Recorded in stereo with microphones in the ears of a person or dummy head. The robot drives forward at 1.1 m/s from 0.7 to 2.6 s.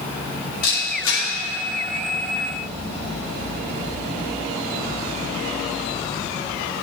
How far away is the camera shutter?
About 5.5 m.